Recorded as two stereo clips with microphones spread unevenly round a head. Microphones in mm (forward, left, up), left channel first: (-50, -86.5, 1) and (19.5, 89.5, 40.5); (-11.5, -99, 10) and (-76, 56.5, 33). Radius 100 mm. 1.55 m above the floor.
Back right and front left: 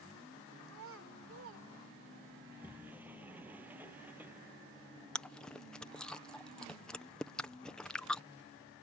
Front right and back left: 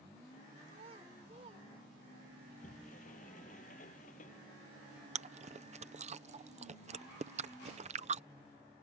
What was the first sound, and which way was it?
A child speaking, 50° left.